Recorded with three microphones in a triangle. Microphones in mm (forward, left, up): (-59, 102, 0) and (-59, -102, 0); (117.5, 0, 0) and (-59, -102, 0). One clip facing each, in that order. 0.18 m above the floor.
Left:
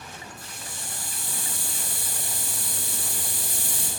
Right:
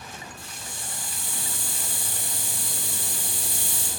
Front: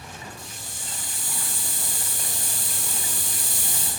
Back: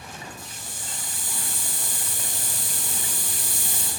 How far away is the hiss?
About 3 m.